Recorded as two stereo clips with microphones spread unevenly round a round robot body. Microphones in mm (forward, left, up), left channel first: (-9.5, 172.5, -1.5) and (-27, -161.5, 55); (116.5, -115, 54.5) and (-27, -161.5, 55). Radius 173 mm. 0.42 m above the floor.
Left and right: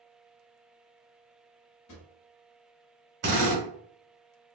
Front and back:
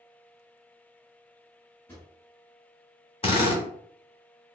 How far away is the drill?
About 1.9 m.